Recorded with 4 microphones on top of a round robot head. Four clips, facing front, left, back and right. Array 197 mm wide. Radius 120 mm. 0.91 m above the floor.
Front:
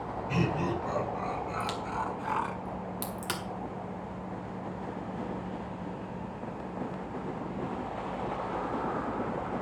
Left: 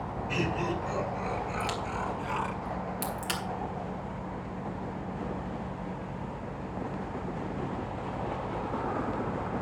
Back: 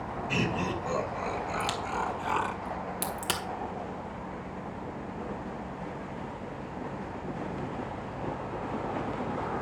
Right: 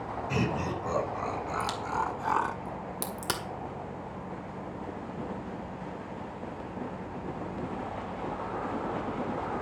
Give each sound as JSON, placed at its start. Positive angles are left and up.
{"t": 0.3, "sound": "laughter", "azimuth_deg": -115, "distance_m": 4.5}
{"t": 1.6, "sound": "a crack", "azimuth_deg": -120, "distance_m": 2.0}